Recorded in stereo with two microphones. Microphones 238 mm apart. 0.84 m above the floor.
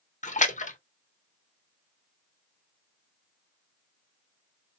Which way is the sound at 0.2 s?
30° left (ahead or behind).